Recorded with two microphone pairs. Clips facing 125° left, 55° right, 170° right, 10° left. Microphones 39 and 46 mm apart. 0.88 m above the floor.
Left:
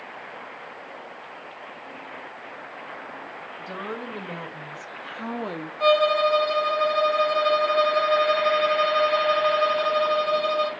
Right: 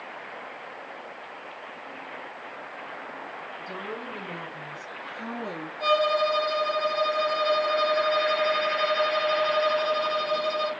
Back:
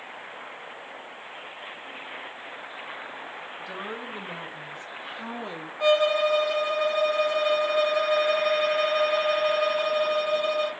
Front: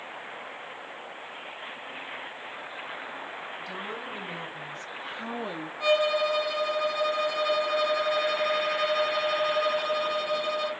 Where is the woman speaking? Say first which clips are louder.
Left 4 dB, back 3 dB; 125° left, 1.5 m; by 5.7 s 80° left, 0.5 m.